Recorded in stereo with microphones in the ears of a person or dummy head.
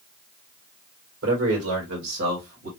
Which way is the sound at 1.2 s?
75° right (ahead or behind).